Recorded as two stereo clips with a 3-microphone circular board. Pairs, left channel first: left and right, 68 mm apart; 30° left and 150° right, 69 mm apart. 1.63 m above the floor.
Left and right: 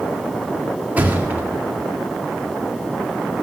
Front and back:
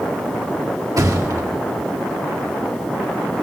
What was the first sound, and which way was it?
A thud, 155° right.